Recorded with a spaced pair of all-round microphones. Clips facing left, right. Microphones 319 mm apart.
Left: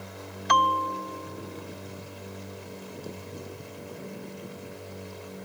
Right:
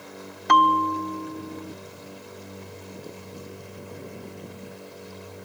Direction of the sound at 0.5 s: 55° right (ahead or behind).